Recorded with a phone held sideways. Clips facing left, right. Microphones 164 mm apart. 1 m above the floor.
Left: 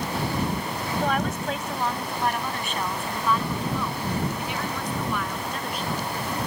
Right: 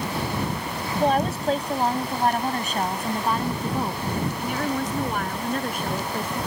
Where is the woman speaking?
30° right (ahead or behind); by 6.4 s 50° right (ahead or behind).